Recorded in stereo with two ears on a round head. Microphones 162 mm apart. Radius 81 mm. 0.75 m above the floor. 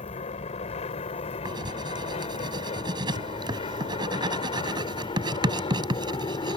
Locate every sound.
0.0 s an aircraft: 40° left (ahead or behind); by 6.6 s 25° left (ahead or behind)
1.4 s writing: 25° right (ahead or behind)